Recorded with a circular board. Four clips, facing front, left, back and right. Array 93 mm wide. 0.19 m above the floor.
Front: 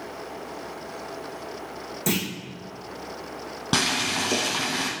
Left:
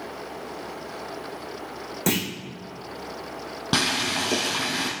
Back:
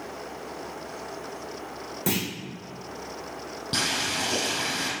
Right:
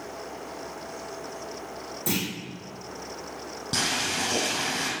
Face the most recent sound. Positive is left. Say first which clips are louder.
# left 4 dB, front 4 dB
turn(degrees=45)